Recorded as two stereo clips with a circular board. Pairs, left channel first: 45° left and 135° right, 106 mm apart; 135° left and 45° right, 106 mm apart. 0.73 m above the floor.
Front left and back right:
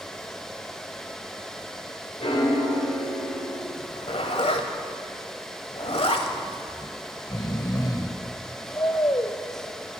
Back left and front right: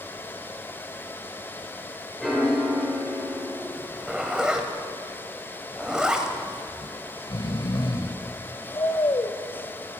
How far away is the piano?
About 3.5 m.